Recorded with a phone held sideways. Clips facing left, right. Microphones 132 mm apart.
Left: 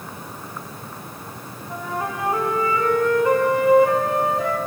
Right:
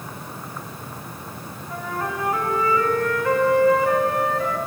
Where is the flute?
20° left (ahead or behind), 1.7 m.